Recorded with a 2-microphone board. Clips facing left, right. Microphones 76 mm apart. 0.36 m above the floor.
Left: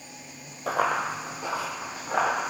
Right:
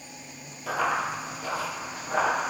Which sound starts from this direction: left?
Running footsteps, at 0.7 s.